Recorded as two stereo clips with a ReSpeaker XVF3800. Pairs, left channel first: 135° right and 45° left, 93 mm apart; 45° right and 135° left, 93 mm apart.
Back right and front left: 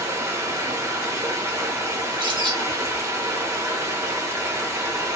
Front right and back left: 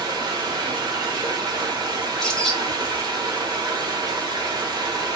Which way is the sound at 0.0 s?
100° left.